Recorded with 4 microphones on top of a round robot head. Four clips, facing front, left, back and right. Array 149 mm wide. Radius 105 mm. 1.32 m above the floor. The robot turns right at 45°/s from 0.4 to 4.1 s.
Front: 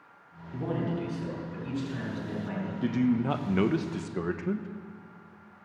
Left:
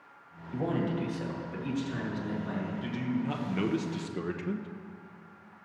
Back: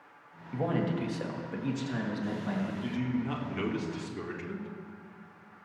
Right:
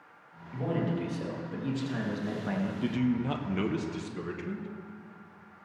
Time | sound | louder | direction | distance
0.5 | a man speaking | left 1 dB, back 1 dB | 155° left | 2.5 m
2.8 | a man speaking | right 5 dB, front 11 dB | 35° right | 0.9 m